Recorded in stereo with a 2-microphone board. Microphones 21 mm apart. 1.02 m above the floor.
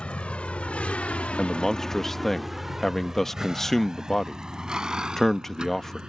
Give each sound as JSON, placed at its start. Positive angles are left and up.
{"t": 0.0, "sound": "a vehicle", "side_deg": 65}
{"t": 1.4, "sound": "a man speaking", "side_deg": 20}